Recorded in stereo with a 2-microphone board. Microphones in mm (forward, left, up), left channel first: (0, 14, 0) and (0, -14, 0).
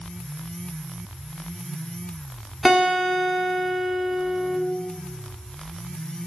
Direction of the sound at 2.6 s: 5° right (ahead or behind).